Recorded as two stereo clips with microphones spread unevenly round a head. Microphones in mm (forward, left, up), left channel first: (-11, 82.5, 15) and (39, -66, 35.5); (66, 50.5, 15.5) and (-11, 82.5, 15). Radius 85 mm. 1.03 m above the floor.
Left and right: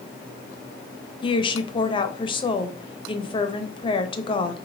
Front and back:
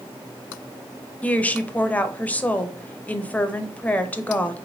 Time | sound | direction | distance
1.2 | a woman speaking | 50° left | 0.9 m